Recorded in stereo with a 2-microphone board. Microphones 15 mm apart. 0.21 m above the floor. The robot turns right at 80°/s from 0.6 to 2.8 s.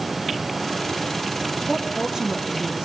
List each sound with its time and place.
1.7 s a woman speaking: 175° right, 5.5 m; by 2.9 s 85° right, 5.5 m